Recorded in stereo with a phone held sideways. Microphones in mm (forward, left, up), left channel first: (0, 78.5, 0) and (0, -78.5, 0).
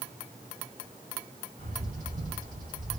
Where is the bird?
55° right (ahead or behind), 2.5 m.